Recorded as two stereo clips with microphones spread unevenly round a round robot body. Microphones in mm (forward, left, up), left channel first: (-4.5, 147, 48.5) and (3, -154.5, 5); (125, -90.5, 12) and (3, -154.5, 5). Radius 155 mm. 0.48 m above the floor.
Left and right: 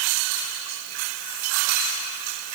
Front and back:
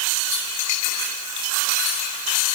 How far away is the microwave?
No microwave in this recording.